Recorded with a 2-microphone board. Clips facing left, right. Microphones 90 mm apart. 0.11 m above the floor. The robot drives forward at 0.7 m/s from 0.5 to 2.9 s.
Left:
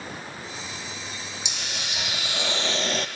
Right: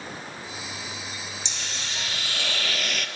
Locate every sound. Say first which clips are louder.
1.4 s a hiss: left 1 dB; 10° left (ahead or behind), 1.5 m; by 3.1 s 30° left (ahead or behind), 0.6 m